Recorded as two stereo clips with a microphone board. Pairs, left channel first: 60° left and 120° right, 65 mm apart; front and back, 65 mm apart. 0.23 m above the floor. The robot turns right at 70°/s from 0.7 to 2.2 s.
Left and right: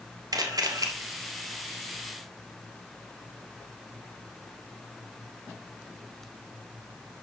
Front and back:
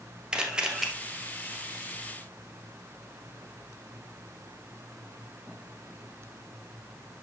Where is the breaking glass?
No breaking glass in this recording.